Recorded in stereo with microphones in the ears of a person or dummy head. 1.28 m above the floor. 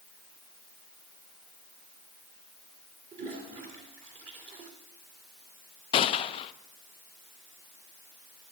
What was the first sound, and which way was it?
A toilet flushing, 35° right (ahead or behind).